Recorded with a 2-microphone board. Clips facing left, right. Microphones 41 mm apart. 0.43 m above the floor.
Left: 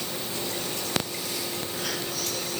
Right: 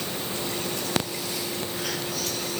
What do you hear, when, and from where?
Only background noise.